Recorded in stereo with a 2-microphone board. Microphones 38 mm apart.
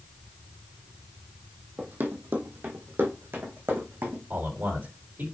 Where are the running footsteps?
50° right (ahead or behind), 1.4 m; by 4.2 s 70° right (ahead or behind), 2.5 m.